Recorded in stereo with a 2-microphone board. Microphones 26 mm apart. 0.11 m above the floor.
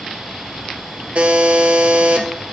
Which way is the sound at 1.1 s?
55° right (ahead or behind).